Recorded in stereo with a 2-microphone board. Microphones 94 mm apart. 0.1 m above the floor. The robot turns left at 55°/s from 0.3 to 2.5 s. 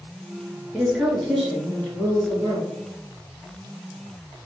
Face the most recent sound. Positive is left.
turn(degrees=25)  # may be behind; listen again after turning